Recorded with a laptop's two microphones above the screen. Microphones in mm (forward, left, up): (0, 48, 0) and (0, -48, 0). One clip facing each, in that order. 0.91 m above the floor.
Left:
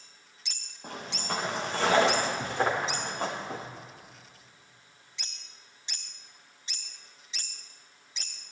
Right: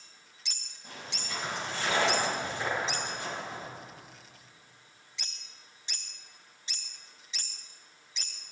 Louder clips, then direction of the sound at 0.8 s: Left 7 dB; 65° left (ahead or behind).